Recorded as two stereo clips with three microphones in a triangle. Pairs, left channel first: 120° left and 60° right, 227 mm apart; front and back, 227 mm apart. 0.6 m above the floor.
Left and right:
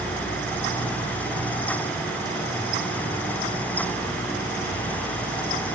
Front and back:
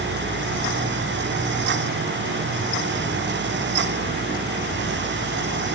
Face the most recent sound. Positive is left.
No sound to turn to.